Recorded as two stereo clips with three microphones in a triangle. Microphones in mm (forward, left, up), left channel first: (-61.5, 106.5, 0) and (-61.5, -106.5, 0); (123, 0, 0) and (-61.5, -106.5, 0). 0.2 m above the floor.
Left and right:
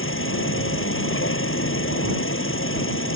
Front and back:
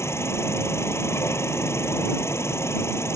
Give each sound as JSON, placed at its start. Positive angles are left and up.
{"t": 0.0, "sound": "an insect", "azimuth_deg": 110}